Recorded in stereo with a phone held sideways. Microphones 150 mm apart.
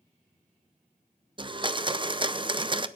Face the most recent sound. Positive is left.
turn(degrees=-35)  # may be behind; listen again after turning